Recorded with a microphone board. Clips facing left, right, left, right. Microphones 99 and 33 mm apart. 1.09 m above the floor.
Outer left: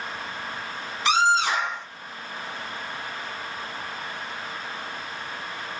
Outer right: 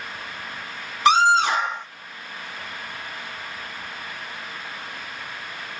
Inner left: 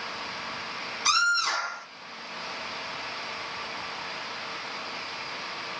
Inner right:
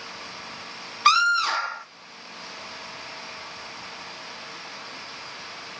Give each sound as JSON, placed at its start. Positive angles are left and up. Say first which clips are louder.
{"t": 1.1, "sound": "a scream", "louder": "outer right 4 dB, inner right 5 dB", "side_deg": -50, "distance_m": 1.8}